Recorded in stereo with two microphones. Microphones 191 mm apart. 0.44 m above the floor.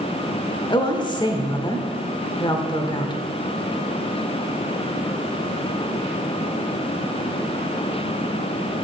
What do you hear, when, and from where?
0.7 s a woman speaking: 25° left (ahead or behind), 1.1 m